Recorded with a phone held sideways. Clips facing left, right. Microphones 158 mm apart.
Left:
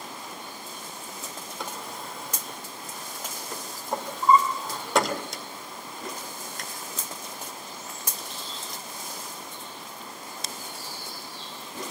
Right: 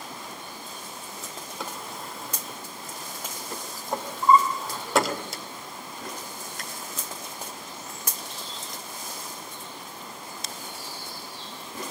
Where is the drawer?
Centre (ahead or behind), 2 m.